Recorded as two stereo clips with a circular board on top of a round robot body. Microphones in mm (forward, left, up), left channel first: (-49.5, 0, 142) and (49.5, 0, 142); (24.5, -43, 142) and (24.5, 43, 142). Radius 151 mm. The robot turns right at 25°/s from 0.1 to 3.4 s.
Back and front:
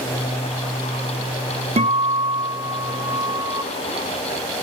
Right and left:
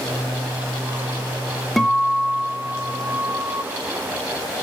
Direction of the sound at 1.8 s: 5° right.